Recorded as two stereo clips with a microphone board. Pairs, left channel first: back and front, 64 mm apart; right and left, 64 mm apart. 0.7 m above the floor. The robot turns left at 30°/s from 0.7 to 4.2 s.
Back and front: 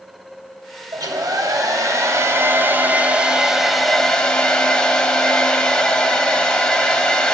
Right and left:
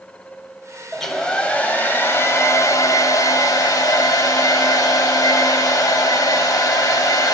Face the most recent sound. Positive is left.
turn(degrees=-105)